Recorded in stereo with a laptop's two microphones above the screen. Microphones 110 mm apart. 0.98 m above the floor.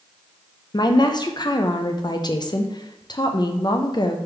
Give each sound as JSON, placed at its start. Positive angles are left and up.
{"t": 0.7, "sound": "a woman speaking", "side_deg": 40, "distance_m": 0.5}